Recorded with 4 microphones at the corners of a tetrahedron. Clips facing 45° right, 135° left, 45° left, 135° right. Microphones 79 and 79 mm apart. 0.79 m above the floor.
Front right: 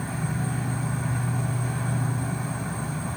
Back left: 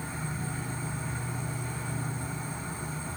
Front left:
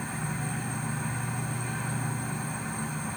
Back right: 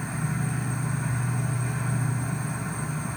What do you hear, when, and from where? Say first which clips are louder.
0.0 s an insect: front right 6 dB, back right 3 dB; 50° right, 1.4 m